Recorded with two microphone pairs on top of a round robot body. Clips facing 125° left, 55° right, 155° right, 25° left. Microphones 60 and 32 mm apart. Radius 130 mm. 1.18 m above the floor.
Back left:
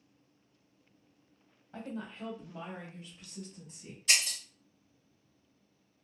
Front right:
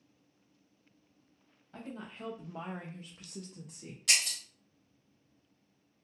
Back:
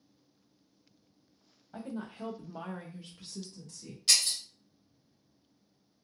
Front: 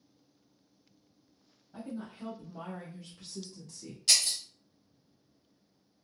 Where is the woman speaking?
160° right, 0.8 m; by 4.0 s 50° right, 1.0 m.